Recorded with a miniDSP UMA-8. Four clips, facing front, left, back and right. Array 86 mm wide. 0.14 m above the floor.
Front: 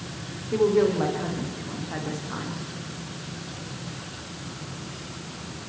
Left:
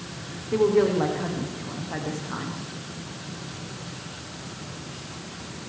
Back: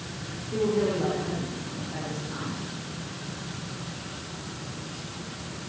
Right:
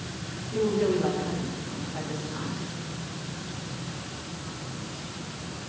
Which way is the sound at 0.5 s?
60° left.